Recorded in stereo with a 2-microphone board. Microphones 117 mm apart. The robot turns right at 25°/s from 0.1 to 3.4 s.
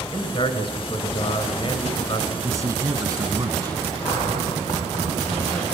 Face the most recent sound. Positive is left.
turn(degrees=70)  # may be behind; listen again after turning